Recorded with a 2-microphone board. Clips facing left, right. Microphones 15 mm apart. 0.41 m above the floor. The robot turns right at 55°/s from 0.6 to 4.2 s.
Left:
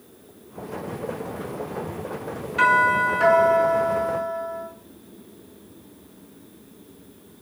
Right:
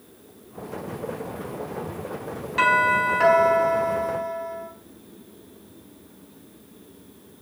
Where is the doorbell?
90° right, 4 m; by 4.7 s straight ahead, 4 m.